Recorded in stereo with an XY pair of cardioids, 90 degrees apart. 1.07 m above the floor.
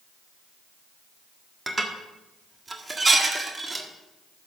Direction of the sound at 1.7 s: 25° right.